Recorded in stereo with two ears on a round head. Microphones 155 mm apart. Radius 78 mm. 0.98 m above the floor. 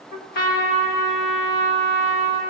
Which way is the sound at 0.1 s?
60° left (ahead or behind).